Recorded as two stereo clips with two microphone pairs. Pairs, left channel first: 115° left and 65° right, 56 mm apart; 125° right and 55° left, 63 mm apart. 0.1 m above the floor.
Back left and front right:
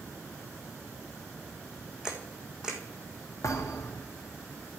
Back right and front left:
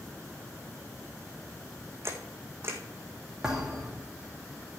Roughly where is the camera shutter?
Ahead.